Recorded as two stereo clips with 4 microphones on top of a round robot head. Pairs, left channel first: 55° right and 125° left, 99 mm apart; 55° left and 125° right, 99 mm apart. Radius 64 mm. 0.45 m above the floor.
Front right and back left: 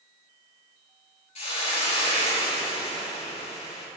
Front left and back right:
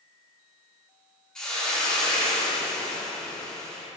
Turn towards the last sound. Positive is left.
turn(degrees=-30)